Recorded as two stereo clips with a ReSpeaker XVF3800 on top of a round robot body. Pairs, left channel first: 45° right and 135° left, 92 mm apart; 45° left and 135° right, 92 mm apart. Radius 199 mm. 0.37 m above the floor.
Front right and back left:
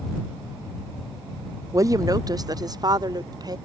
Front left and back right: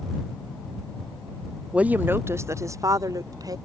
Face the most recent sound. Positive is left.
turn(degrees=180)